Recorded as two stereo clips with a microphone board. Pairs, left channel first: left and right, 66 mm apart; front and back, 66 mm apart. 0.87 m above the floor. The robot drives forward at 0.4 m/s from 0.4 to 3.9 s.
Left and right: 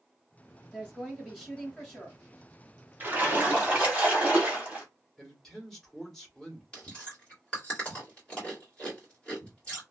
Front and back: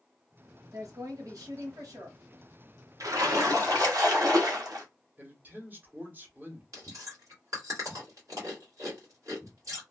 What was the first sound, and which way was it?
A woman speaking, 170° left.